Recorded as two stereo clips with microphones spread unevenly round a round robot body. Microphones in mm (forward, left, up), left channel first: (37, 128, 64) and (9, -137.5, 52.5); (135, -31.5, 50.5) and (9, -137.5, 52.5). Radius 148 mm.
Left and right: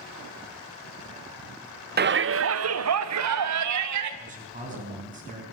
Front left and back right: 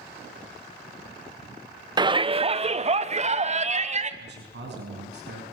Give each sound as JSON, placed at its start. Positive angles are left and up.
{"t": 2.0, "sound": "a shout", "azimuth_deg": -90, "distance_m": 1.0}
{"t": 4.2, "sound": "a man speaking", "azimuth_deg": -160, "distance_m": 5.0}